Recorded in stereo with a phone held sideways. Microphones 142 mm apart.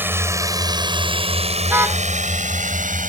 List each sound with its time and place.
0.0 s a drone: 15° right (ahead or behind); by 3.1 s 80° right
1.7 s a car horn: 20° right (ahead or behind)